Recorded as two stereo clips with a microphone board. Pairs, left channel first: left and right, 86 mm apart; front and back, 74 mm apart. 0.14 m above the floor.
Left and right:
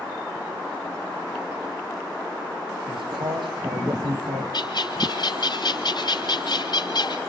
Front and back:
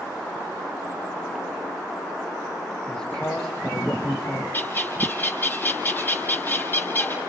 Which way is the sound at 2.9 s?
80° right.